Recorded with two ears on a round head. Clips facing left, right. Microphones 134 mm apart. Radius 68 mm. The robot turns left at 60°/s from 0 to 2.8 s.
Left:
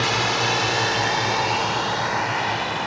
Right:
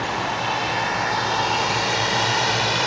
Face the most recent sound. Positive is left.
turn(degrees=-70)  # may be behind; listen again after turning